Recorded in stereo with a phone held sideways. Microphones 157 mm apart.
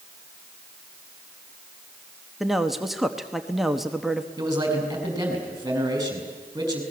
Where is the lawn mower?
I don't hear a lawn mower.